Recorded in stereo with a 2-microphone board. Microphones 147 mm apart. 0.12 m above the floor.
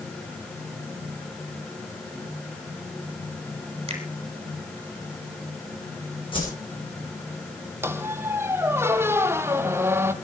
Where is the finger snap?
40° right (ahead or behind), 3.5 m.